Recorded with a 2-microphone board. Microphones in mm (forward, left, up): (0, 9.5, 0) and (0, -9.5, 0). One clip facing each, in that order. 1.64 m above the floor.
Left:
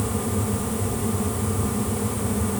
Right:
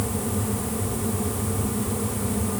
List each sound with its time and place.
Only background noise.